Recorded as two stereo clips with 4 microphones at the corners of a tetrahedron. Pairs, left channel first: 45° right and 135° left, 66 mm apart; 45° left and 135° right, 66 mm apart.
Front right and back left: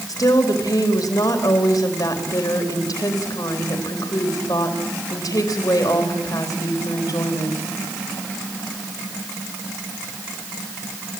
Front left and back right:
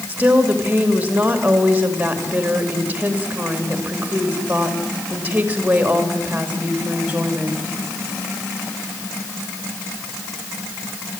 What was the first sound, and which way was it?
A woman speaking, 70° right.